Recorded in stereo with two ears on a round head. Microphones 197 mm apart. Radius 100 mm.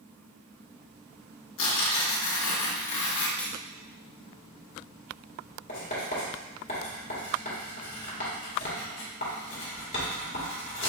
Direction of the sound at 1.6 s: 60° left (ahead or behind).